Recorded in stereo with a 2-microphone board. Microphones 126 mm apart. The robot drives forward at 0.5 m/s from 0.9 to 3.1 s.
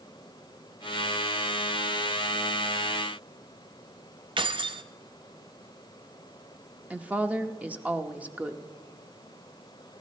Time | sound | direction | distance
4.4 | keys jangling | 40° right (ahead or behind) | 0.6 m
6.9 | a woman speaking | 10° right (ahead or behind) | 0.7 m